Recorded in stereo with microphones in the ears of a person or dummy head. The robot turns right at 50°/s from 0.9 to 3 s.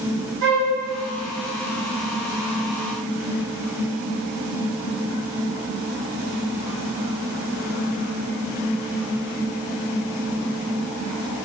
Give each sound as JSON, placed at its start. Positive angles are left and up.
{"t": 0.4, "sound": "a flute", "side_deg": -55, "distance_m": 2.0}